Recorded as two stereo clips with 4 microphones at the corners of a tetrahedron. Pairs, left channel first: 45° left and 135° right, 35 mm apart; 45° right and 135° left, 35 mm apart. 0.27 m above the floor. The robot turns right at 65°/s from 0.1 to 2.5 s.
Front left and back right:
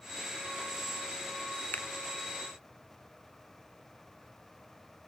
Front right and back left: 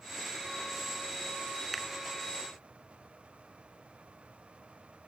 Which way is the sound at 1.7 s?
45° left.